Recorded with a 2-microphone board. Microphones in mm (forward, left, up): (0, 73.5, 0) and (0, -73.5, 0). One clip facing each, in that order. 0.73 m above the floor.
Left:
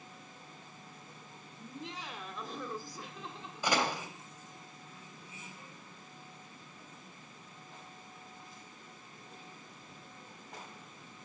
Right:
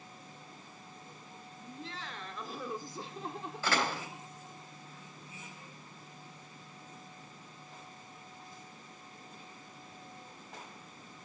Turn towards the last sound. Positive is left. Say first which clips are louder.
# left 1 dB
turn(degrees=15)  # may be behind; listen again after turning